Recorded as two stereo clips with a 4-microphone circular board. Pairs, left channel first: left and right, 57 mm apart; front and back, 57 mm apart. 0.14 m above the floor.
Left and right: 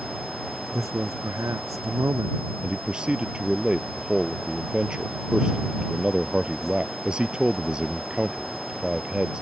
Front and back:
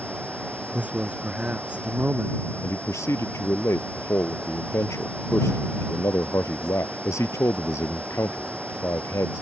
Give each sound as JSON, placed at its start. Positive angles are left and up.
{"t": 0.7, "sound": "a man speaking", "azimuth_deg": -115}
{"t": 2.6, "sound": "a man speaking", "azimuth_deg": -15}